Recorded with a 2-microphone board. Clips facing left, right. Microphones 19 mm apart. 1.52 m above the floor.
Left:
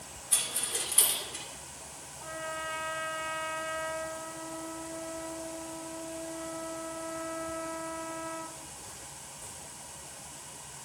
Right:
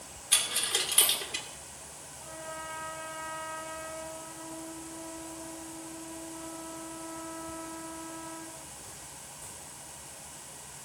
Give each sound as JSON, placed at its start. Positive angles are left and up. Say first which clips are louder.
{"t": 0.3, "sound": "a dropped coin", "louder": "right 5 dB", "side_deg": -65, "distance_m": 2.0}
{"t": 2.2, "sound": "a trumpet", "louder": "left 4 dB", "side_deg": 50, "distance_m": 1.2}